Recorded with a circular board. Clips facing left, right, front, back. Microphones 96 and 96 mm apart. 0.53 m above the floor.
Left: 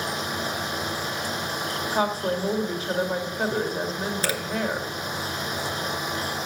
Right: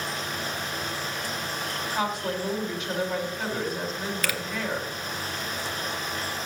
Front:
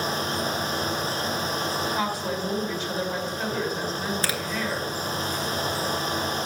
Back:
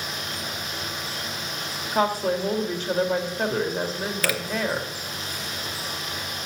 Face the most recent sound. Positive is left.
turn(degrees=45)